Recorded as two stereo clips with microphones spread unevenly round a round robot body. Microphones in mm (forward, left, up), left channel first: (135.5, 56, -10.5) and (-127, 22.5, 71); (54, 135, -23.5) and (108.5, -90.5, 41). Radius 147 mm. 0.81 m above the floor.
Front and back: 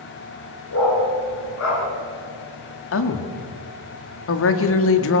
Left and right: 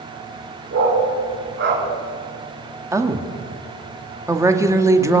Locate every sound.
0.7 s a dog barking: 40° right, 4.5 m
2.9 s a woman speaking: 10° left, 1.9 m